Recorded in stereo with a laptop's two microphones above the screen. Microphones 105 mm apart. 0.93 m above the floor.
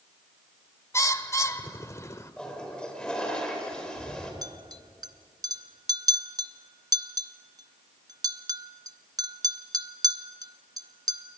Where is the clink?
40° right (ahead or behind), 0.7 m.